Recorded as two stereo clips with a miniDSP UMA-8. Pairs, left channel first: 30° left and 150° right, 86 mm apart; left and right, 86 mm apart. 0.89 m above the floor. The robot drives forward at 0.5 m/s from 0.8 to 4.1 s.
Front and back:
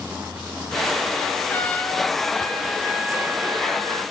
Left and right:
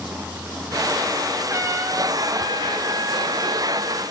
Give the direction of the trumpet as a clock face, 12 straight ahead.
1 o'clock.